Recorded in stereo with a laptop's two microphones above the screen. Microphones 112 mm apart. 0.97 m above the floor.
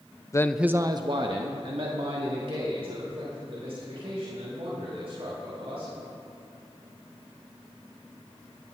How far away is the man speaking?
About 0.5 m.